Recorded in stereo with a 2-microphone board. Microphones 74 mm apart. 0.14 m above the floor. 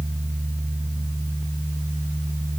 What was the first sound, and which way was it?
Only background noise.